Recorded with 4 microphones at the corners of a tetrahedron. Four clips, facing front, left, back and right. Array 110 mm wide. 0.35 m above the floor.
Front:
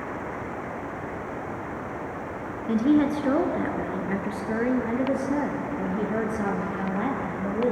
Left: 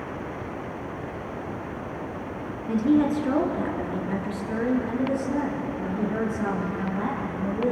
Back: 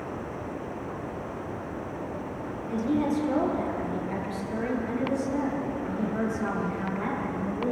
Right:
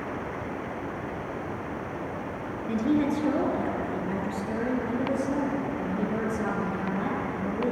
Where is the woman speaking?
10° left, 4 m; by 7.7 s straight ahead, 7.5 m.